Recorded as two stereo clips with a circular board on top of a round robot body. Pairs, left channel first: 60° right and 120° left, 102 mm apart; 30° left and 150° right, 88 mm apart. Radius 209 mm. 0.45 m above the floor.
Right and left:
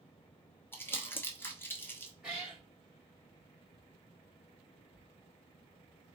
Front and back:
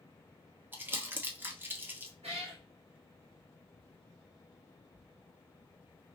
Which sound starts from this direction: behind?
A cat meowing, at 2.2 s.